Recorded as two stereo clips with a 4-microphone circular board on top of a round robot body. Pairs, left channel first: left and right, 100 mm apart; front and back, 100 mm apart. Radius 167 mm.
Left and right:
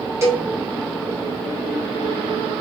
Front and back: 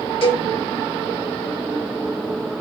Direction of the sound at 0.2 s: 30° right.